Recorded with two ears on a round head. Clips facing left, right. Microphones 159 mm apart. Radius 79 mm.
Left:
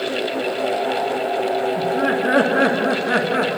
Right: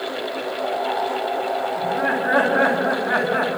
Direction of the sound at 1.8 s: 30° left (ahead or behind).